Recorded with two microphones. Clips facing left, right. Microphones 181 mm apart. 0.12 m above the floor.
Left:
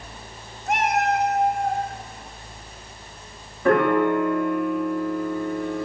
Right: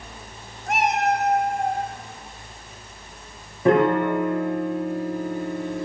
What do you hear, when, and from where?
0.7 s a cat meowing: 5° left (ahead or behind), 0.6 m; by 1.8 s 60° right (ahead or behind), 1.5 m
3.6 s a piano: 20° right (ahead or behind), 1.4 m